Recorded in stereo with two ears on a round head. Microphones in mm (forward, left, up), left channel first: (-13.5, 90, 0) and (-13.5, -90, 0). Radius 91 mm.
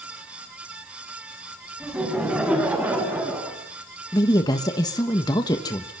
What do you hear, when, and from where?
1.8 s laughter: 5° right (ahead or behind), 9 m; by 3.6 s 10° right (ahead or behind), 8 m
4.1 s a woman speaking: 20° left (ahead or behind), 1.3 m